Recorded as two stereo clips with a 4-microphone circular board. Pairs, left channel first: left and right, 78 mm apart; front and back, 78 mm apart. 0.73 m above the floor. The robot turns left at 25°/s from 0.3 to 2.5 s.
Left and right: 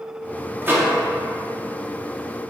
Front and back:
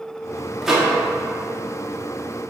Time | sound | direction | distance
0.6 | a microwave | 100° right | 0.7 m